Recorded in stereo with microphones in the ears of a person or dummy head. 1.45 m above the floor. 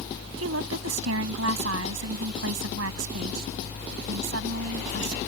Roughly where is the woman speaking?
Right.